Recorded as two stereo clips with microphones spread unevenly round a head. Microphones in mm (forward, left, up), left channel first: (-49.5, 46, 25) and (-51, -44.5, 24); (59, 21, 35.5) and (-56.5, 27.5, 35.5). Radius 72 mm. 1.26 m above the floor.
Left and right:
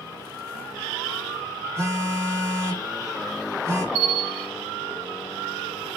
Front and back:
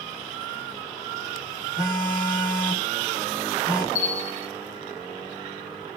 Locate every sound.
1.8 s a phone buzzing: 105° right, 1.2 m
4.0 s a bell: 65° right, 1.5 m